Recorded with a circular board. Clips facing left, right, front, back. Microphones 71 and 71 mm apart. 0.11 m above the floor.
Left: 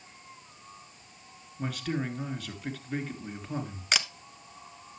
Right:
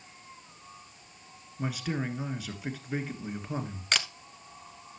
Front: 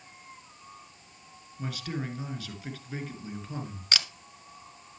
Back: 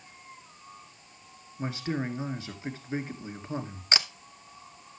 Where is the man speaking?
160° right, 1.5 m.